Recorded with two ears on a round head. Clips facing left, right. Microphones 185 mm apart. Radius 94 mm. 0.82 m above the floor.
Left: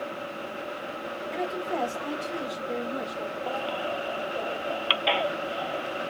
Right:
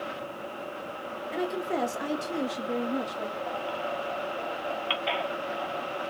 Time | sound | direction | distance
1.3 | a woman speaking | 10° right (ahead or behind) | 0.9 m
3.5 | a baby crying | 50° left (ahead or behind) | 0.5 m